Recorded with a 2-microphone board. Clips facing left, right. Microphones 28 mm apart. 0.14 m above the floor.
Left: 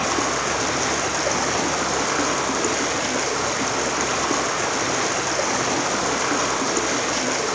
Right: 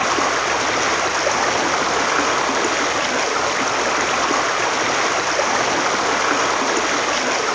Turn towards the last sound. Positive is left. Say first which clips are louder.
# right 4 dB
turn(degrees=-25)  # may be behind; listen again after turning